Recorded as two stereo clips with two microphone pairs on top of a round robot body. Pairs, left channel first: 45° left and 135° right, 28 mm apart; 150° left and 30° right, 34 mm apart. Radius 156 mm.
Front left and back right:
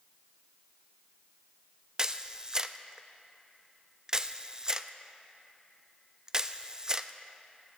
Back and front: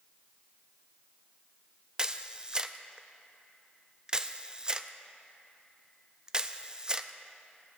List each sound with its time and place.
2.0 s a camera shutter: 80° right, 0.6 m